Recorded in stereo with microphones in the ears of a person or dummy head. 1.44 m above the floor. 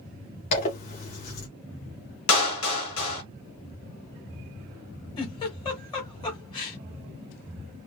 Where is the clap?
75° left (ahead or behind), 1.8 m.